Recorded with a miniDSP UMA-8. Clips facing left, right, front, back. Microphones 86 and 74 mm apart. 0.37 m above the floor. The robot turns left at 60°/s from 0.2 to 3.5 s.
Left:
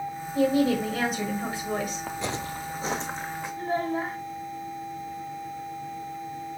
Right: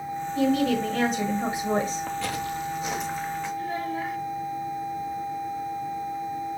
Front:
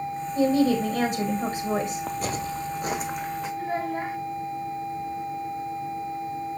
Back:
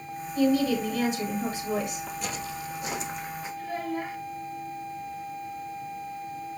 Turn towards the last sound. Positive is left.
turn(degrees=45)